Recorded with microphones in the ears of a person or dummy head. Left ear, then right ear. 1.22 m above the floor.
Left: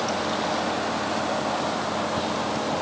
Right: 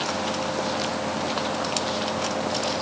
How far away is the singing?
I don't hear singing.